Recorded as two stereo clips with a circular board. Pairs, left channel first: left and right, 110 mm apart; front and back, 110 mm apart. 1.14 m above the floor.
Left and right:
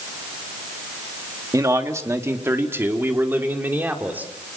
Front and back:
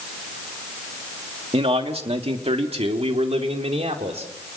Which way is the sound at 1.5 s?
150° right.